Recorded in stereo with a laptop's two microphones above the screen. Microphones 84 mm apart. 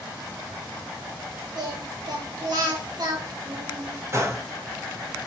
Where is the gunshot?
35° right (ahead or behind), 1.1 m.